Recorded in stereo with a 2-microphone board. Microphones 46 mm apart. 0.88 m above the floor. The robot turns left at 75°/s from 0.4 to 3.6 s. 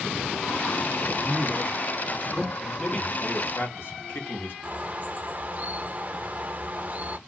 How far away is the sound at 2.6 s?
About 1.4 m.